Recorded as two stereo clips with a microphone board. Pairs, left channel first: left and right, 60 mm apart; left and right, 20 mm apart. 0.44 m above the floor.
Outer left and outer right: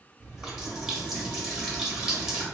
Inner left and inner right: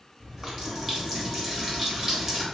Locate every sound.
0.2 s a running tap: 10° right (ahead or behind), 1.2 m